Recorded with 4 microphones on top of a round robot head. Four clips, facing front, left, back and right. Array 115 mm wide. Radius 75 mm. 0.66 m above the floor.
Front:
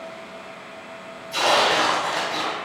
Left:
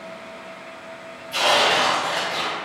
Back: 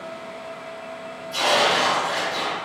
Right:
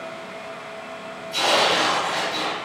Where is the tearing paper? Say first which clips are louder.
Left 1 dB, front 1 dB; 50° left, 1.2 m.